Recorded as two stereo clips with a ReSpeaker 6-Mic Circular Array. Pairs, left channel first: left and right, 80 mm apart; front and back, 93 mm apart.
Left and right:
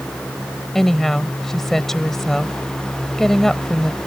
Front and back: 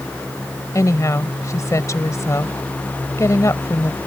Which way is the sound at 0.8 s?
10° left.